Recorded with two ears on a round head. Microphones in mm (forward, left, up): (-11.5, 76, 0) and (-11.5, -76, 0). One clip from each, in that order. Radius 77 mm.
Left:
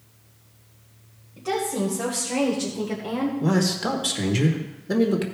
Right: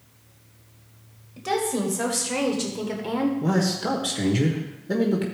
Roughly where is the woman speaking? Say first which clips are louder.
Right 1 dB; right.